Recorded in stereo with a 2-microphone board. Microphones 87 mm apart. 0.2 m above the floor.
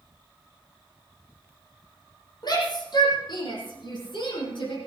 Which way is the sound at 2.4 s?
55° left (ahead or behind).